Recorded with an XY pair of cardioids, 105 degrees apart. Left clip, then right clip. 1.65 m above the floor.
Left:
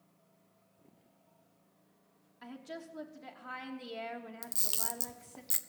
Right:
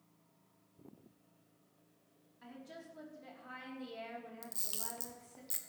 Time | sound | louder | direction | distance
2.4 | a woman speaking | left 6 dB | 45° left | 3 m
4.4 | a camera shutter | left 10 dB | 45° left | 0.9 m